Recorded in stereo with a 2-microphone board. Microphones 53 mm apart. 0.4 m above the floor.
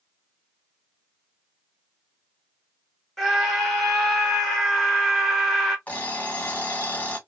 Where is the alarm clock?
30° left (ahead or behind), 1.1 m.